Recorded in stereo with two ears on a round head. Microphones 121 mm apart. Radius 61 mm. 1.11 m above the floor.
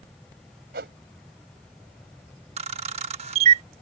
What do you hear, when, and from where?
0.7 s a whoosh: 85° right
2.6 s a camera shutter: 45° right (ahead or behind)